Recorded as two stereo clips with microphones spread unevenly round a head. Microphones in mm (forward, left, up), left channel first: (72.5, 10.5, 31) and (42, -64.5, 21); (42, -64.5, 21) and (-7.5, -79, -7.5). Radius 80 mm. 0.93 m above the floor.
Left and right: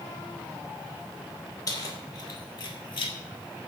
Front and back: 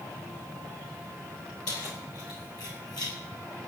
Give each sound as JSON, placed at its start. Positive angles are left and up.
{"t": 1.7, "sound": "keys jangling", "azimuth_deg": 30, "distance_m": 3.0}